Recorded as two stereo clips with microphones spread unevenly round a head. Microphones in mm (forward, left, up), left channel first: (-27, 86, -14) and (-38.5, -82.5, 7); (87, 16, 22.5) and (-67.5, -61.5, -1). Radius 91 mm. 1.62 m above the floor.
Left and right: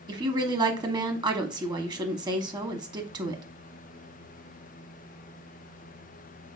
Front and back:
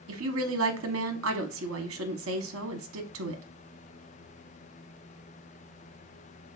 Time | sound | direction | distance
0.1 | a woman speaking | 155° right | 0.9 m